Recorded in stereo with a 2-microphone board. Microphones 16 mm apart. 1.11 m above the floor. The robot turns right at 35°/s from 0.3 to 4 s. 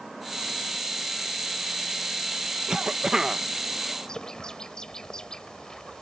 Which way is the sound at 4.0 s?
40° left (ahead or behind).